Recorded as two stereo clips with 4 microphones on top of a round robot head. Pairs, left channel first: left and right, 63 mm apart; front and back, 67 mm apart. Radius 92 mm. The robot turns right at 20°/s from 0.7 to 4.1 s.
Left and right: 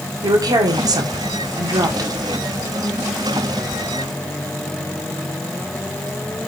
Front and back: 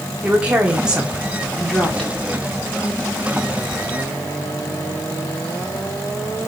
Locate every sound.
0.2 s a woman speaking: 105° right, 2 m; by 2.1 s 75° right, 2 m